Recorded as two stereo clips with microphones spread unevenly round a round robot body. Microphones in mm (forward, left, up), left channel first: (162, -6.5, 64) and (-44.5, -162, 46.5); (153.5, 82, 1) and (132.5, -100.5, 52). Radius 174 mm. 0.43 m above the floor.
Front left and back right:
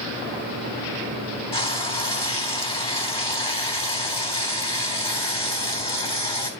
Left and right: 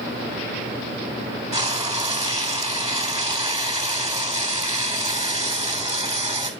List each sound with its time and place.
1.5 s frying: 35° right, 3 m